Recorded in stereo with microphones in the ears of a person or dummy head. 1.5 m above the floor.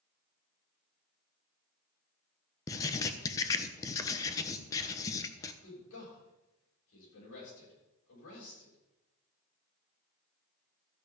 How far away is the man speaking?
About 7.5 m.